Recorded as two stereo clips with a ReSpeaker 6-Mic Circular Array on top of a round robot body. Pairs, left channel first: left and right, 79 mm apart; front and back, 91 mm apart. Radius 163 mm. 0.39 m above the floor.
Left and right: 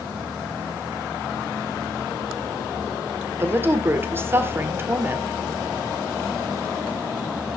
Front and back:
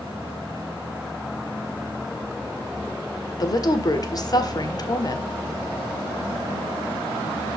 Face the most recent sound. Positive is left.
turn(degrees=-35)